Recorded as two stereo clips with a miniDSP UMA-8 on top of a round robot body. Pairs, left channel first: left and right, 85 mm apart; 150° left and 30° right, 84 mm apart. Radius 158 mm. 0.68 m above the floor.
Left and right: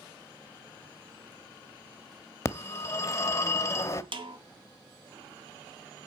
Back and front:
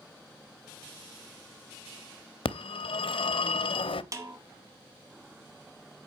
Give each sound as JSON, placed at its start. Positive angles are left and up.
{"t": 2.5, "sound": "a phone ringing", "azimuth_deg": 145, "distance_m": 0.8}
{"t": 4.1, "sound": "a snare drum", "azimuth_deg": -80, "distance_m": 1.8}